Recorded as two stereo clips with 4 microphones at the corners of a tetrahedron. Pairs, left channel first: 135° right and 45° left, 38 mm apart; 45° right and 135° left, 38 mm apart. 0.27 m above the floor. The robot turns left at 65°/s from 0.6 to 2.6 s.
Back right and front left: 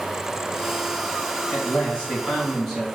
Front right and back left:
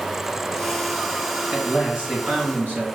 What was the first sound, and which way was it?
A man speaking, 145° right.